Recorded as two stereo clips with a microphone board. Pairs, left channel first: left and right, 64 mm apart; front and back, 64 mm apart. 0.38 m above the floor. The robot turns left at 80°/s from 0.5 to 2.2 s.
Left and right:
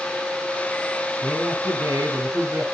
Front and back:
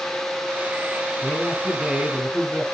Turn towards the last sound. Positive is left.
turn(degrees=-120)